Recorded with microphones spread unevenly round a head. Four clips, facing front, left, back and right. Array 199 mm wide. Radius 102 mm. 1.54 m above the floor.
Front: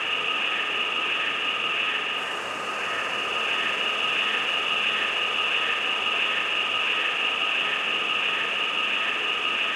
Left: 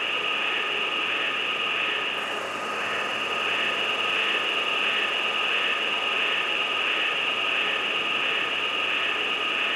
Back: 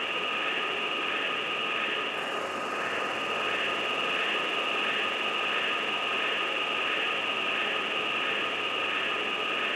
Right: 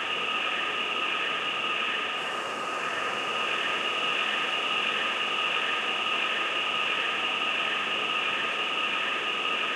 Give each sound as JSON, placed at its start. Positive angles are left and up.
{"t": 0.0, "sound": "an insect", "azimuth_deg": 130, "distance_m": 1.6}